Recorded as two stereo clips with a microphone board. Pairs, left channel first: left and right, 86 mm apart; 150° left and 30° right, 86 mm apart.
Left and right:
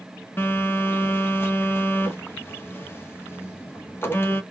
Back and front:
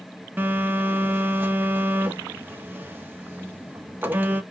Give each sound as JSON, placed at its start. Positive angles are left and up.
{"t": 0.4, "sound": "a phone buzzing", "azimuth_deg": 35, "distance_m": 0.8}